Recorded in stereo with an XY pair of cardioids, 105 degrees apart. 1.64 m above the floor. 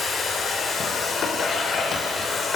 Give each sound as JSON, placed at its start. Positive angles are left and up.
{"t": 0.0, "sound": "a machine running", "azimuth_deg": 50, "distance_m": 4.0}